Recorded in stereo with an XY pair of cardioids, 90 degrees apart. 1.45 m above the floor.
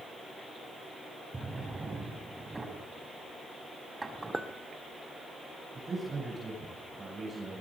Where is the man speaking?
30° right, 9 m.